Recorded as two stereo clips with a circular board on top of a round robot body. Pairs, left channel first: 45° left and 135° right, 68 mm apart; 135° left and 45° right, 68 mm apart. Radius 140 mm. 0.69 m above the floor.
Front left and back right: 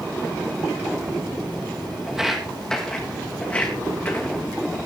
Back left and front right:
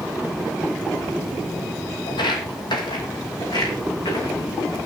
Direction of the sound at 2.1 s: 145° left.